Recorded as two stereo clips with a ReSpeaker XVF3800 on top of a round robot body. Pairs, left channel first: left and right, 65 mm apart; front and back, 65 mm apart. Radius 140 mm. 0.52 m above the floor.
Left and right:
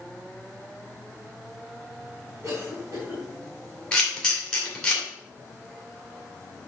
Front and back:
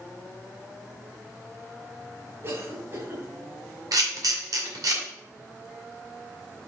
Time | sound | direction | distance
2.4 | a cough | 145° right | 3 m
3.9 | a camera shutter | 170° left | 2.5 m